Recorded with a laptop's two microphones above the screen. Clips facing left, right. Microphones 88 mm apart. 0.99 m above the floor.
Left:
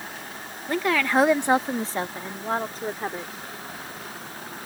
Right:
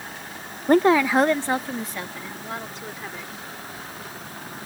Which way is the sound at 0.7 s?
55° right (ahead or behind).